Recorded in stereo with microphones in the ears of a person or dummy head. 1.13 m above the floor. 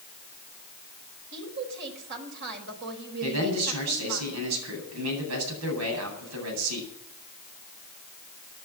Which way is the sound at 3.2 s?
85° right.